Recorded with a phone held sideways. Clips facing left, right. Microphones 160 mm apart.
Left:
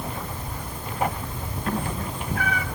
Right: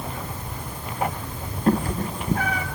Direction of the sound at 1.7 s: 35° right (ahead or behind).